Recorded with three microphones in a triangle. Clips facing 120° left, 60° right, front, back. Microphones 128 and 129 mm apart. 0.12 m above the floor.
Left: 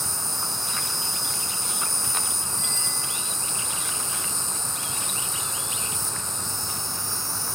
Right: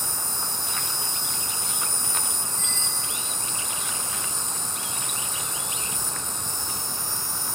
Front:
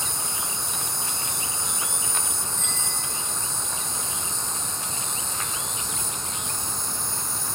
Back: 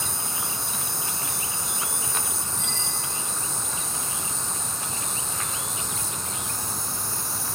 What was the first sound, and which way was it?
An insect, 105° right.